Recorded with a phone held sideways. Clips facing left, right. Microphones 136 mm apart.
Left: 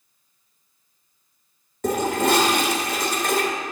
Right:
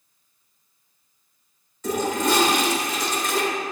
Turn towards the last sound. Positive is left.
turn(degrees=60)  # may be behind; listen again after turning